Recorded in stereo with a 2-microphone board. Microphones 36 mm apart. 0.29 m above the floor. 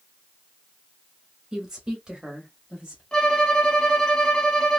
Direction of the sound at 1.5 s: 15° right (ahead or behind).